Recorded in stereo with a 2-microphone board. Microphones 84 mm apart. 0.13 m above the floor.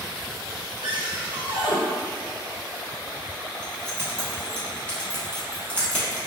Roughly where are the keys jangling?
Centre.